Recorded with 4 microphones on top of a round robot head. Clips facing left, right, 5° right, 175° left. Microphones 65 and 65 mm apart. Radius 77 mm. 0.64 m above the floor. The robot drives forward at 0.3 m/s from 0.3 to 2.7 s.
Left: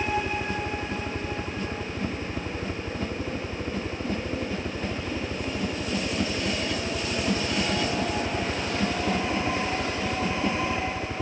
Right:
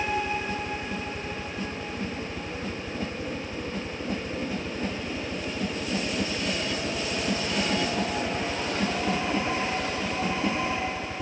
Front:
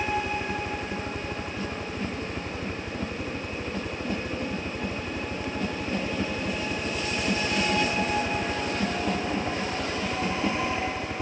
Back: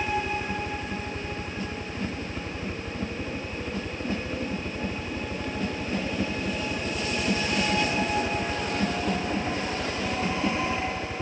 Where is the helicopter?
70° left.